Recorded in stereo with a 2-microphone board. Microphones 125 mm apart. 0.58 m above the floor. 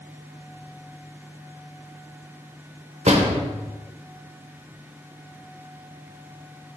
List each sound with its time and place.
3.1 s a door slam: 65° right (ahead or behind), 1.0 m